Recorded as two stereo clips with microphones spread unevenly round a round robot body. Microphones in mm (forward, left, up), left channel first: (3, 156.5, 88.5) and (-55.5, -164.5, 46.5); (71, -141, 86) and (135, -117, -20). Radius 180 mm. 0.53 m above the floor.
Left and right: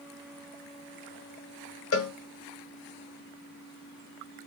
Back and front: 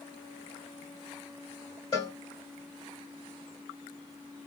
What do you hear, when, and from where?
1.9 s a cowbell: 130° left, 1.3 m